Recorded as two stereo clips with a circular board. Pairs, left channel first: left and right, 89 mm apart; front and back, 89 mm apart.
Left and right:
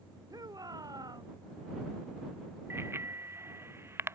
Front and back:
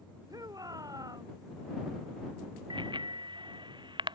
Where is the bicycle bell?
150° right.